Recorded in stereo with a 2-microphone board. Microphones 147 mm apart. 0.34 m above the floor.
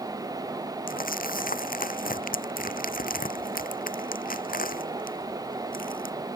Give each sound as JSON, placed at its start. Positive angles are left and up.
{"t": 0.9, "sound": "crumpling", "side_deg": 70}